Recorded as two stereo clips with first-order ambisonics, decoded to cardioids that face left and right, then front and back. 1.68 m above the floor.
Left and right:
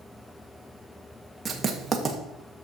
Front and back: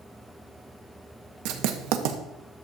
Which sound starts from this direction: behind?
Writing, at 1.4 s.